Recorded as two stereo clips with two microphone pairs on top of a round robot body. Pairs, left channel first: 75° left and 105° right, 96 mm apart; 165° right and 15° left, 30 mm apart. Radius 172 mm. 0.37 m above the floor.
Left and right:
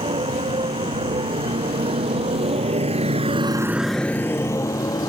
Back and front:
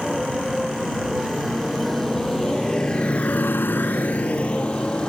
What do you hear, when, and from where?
0.0 s a motorcycle: 75° right; by 5.1 s 130° left